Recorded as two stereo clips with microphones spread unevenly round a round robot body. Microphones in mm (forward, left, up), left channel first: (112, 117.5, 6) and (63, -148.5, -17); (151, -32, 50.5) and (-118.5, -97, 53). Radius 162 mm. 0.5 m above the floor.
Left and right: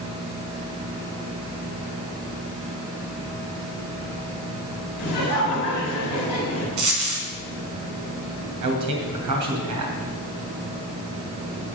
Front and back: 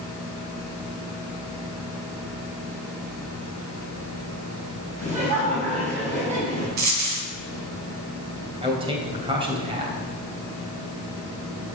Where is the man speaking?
95° right, 2.5 m.